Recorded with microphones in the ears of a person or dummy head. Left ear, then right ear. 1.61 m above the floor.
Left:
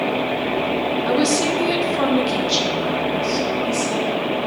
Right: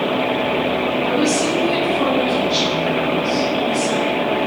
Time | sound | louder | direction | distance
1.1 | a woman speaking | left 1 dB | 40° left (ahead or behind) | 1.2 m